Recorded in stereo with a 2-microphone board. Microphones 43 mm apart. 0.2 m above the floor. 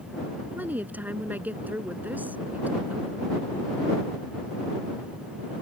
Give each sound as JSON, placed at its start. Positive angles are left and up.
{"t": 0.6, "sound": "a woman speaking", "side_deg": -45}